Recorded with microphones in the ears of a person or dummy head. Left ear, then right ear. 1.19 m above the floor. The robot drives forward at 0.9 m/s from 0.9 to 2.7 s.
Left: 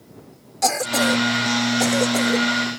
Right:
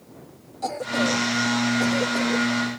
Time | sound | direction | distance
0.6 | a cough | 65° left (ahead or behind) | ?